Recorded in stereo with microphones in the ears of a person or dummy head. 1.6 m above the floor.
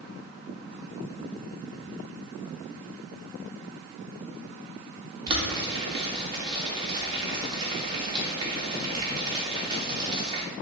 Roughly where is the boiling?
Right.